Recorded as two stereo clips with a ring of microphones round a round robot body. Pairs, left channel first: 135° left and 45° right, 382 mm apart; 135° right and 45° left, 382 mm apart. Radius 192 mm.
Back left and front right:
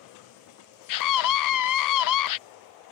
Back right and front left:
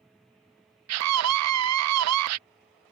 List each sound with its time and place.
0.9 s a scream: 95° left